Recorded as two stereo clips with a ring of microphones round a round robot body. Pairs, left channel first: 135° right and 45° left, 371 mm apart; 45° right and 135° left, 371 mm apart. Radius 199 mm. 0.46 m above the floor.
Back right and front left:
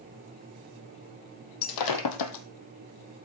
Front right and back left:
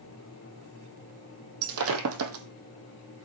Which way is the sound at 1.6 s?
170° right.